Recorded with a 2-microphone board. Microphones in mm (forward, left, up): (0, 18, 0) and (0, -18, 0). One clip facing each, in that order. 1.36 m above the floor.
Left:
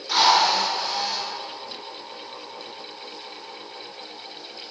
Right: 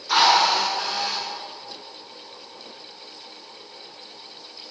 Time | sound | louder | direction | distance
0.1 | a drill | right 1 dB | 65° right (ahead or behind) | 7.5 m